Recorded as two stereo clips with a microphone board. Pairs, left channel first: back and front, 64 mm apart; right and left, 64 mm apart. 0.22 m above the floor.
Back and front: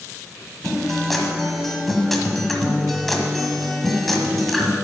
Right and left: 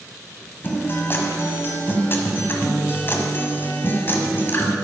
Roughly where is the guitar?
Right.